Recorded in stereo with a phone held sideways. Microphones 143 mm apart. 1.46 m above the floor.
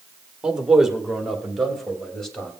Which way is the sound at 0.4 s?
5° right (ahead or behind).